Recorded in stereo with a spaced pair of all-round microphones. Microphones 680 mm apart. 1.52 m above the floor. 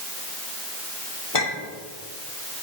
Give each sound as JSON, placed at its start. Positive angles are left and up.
{"t": 1.3, "sound": "a clink", "side_deg": 50, "distance_m": 2.5}